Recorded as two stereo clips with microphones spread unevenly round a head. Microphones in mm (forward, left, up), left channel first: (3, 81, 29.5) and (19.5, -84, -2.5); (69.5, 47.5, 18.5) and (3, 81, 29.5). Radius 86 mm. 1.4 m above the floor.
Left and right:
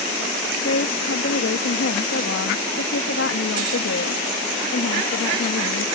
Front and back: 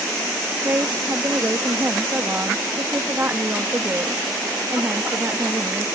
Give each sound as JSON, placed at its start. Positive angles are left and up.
{"t": 0.6, "sound": "a woman speaking", "azimuth_deg": 95}